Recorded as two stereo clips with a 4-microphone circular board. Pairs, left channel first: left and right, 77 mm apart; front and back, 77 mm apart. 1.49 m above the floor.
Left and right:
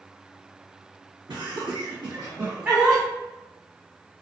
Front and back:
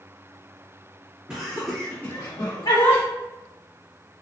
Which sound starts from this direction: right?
Laughter, at 1.3 s.